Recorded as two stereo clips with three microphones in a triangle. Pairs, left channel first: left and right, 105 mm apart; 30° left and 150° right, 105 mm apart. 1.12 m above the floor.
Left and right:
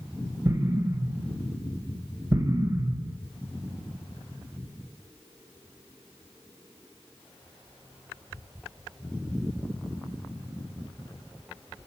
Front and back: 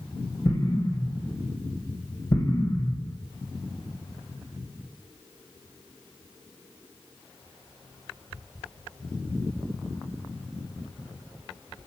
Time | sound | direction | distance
0.5 | an explosion | 30° right | 2.5 m